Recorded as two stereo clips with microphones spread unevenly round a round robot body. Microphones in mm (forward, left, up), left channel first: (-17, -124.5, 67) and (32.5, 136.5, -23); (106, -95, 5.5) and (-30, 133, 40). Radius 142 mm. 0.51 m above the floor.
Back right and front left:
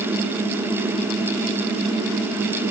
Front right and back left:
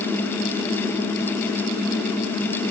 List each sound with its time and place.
Only background noise.